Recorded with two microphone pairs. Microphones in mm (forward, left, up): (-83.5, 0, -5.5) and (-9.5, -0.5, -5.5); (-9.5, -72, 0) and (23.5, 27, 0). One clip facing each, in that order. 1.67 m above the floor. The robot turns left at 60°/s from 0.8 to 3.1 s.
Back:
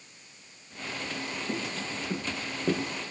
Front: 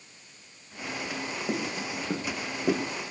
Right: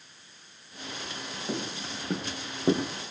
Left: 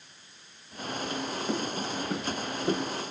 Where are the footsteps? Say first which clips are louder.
Front 4 dB, left 1 dB; 5° right, 3.5 m; by 3.1 s 120° right, 2 m.